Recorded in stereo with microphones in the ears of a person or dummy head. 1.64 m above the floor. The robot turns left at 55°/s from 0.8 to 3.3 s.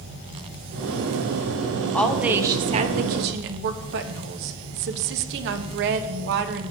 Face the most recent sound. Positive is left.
turn(degrees=-65)